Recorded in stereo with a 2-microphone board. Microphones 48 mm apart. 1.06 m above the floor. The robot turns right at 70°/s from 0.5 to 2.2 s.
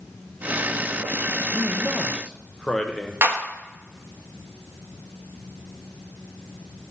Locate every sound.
1.5 s a man speaking: 30° right, 0.7 m; by 3.1 s 15° left, 0.7 m
3.2 s a clap: 50° right (ahead or behind), 1.1 m